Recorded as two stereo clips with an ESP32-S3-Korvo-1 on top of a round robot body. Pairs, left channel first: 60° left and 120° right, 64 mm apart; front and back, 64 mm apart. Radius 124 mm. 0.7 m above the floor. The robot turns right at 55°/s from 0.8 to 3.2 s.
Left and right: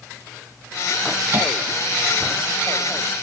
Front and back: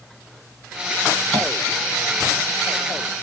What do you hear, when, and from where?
1.3 s tapping: 75° right, 1.7 m; by 1.5 s 65° right, 1.7 m